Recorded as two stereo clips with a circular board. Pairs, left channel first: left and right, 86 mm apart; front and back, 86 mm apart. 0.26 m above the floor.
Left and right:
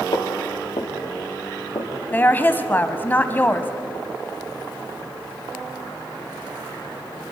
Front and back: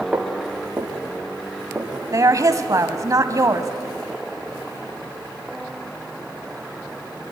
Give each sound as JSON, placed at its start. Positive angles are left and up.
{"t": 0.1, "sound": "footsteps", "azimuth_deg": 105, "distance_m": 3.5}
{"t": 2.1, "sound": "a woman speaking", "azimuth_deg": 150, "distance_m": 1.3}